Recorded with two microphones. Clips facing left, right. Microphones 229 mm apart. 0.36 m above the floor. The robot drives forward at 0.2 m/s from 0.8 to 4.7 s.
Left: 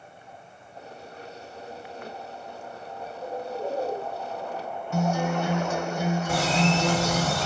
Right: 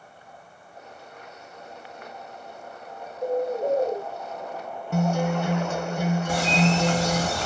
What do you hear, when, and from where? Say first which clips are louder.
3.2 s a bird: right 8 dB; 45° right (ahead or behind), 1.8 m
4.9 s a guitar: right 2 dB; 60° right (ahead or behind), 0.6 m
6.3 s a bird: right 1 dB; 15° right (ahead or behind), 1.6 m